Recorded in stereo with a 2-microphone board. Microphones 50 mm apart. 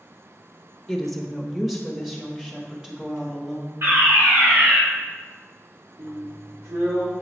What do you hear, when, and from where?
0.9 s a woman speaking: 5° left (ahead or behind), 0.8 m; by 3.7 s 10° right (ahead or behind), 2.5 m
3.8 s a fire alarm: 50° right (ahead or behind), 2.0 m
6.0 s a drill: 65° right (ahead or behind), 1.3 m